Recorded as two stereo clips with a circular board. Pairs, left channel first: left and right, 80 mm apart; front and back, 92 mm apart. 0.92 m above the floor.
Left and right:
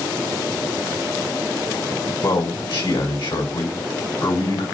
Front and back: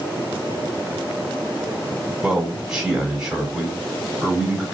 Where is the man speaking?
100° left, 2 m.